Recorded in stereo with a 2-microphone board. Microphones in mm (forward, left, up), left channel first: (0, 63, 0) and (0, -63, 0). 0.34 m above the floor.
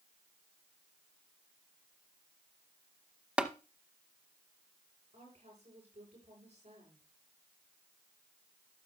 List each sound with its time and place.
3.4 s tapping: 10° right (ahead or behind), 0.7 m
5.1 s a woman speaking: 65° right (ahead or behind), 7.5 m